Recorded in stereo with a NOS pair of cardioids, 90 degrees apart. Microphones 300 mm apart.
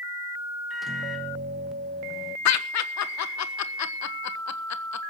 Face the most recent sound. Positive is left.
turn(degrees=70)